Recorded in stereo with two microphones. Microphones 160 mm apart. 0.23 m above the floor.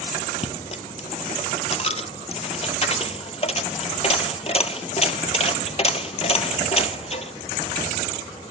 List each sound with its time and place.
0.4 s a dropped coin: 40° left (ahead or behind), 0.6 m